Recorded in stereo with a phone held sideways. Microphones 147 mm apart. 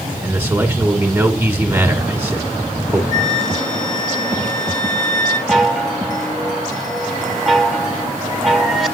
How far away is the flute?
About 2.5 m.